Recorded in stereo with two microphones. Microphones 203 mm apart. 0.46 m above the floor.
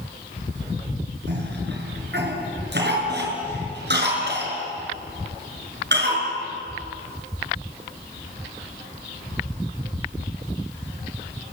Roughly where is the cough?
Right.